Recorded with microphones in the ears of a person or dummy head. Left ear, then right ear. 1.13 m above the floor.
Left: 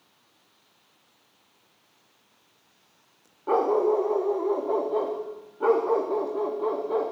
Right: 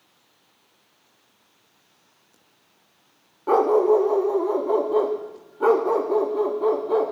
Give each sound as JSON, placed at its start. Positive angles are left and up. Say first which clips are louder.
{"t": 3.5, "sound": "a dog barking", "louder": "right 5 dB", "side_deg": -15, "distance_m": 0.7}